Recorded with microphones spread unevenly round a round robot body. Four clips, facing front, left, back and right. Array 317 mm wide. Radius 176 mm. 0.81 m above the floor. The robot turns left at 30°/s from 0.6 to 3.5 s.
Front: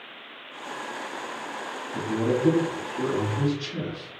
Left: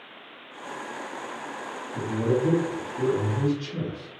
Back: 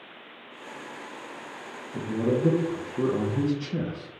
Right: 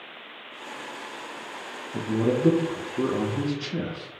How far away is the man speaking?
About 0.9 m.